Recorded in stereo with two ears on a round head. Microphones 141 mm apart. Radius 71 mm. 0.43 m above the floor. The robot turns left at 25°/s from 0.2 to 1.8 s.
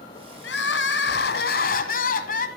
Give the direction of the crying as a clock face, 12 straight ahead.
9 o'clock.